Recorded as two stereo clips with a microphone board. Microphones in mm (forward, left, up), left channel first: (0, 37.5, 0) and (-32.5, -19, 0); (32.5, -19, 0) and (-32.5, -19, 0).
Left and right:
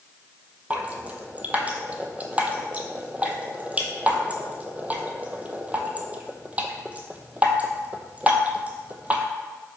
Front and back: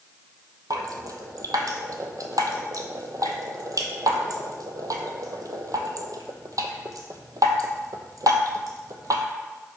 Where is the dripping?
175° left, 0.8 m.